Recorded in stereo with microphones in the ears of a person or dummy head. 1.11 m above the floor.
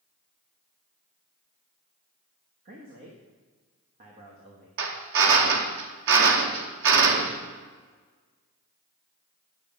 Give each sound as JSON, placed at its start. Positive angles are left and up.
{"t": 2.6, "sound": "a man speaking", "side_deg": -40, "distance_m": 1.4}
{"t": 4.8, "sound": "a drill", "side_deg": -65, "distance_m": 1.1}